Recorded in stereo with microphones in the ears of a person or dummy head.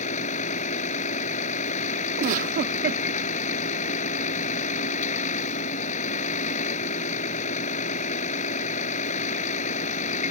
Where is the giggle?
40° right (ahead or behind).